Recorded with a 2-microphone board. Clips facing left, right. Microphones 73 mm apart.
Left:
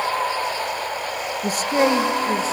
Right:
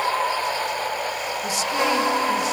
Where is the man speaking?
45° left (ahead or behind), 1.1 m; by 2.5 s 35° left (ahead or behind), 1.7 m.